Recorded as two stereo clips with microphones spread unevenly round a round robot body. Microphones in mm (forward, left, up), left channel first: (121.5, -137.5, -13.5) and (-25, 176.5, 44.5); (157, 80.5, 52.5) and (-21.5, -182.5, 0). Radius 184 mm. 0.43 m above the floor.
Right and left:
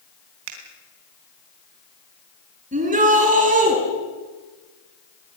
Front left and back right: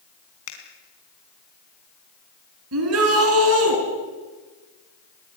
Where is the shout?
175° right, 4.5 m.